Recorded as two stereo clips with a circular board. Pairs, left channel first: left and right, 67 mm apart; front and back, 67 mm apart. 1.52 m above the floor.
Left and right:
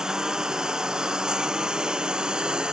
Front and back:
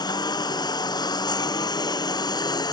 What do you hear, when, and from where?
0.0 s a lawn mower: 10° right; by 2.7 s 15° right